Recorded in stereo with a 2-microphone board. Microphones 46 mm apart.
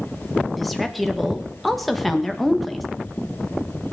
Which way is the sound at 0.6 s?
Centre (ahead or behind).